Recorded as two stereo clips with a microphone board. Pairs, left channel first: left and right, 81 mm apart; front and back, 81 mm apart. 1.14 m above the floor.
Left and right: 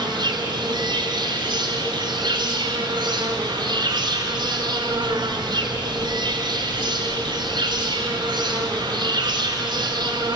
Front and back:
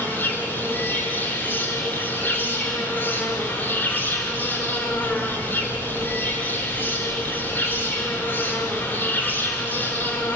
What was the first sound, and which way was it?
An insect, 70° right.